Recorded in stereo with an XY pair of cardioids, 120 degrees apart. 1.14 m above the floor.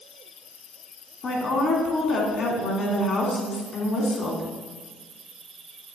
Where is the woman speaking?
40° left, 2 m.